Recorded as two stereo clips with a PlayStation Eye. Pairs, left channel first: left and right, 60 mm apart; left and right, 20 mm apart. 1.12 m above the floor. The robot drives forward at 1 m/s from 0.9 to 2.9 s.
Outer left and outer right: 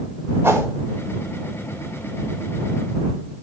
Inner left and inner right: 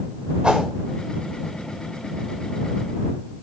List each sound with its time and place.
0.4 s a whoosh: 40° right (ahead or behind), 3.5 m